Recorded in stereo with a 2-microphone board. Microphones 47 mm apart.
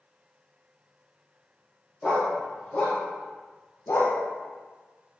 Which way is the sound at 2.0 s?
15° left (ahead or behind).